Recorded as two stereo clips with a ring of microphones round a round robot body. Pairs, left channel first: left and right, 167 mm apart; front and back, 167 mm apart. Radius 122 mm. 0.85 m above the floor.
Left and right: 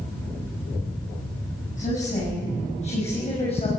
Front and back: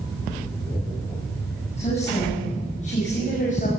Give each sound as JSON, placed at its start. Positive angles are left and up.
{"t": 1.8, "sound": "a woman speaking", "azimuth_deg": 50, "distance_m": 8.0}